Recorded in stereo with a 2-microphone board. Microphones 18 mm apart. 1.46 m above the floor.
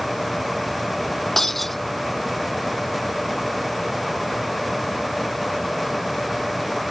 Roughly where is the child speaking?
I don't hear a child speaking.